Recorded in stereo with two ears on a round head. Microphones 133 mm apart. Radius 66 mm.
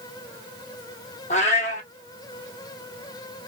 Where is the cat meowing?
55° left (ahead or behind), 1.1 m.